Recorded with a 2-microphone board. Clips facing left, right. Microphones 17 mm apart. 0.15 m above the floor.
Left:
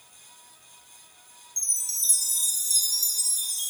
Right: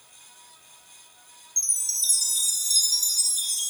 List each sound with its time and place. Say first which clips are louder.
1.6 s a chime: right 2 dB; 25° right (ahead or behind), 0.8 m